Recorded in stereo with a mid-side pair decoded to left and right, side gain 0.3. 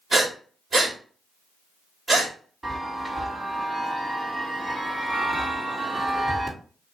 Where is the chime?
30° right, 2 m.